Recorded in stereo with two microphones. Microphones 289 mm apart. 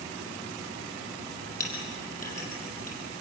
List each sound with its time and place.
1.6 s a clink: 30° left (ahead or behind), 6 m